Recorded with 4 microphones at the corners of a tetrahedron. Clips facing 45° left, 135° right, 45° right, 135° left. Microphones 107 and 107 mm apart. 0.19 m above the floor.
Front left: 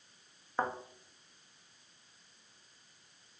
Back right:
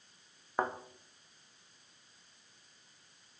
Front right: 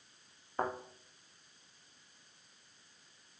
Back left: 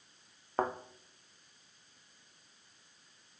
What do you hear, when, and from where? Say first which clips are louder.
0.6 s a thud: even, back left 3 dB; 150° left, 1.7 m